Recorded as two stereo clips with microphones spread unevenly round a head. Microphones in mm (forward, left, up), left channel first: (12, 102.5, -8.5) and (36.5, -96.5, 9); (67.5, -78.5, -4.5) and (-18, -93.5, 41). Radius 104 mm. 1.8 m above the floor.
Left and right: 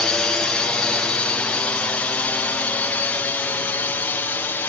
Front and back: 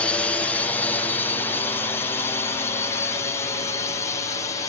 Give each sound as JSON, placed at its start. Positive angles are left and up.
{"t": 0.0, "sound": "a drone", "azimuth_deg": 15}